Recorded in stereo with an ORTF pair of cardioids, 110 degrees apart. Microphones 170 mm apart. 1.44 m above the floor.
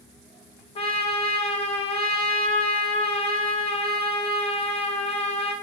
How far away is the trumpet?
About 0.7 m.